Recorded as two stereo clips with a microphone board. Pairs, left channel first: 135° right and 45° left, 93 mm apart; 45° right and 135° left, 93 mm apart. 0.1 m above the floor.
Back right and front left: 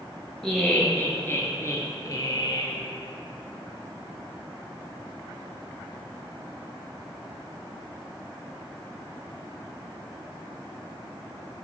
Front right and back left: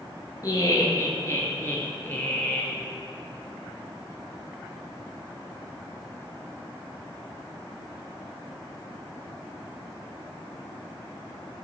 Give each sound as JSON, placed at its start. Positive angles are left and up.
{"t": 0.4, "sound": "laughter", "azimuth_deg": -55, "distance_m": 1.7}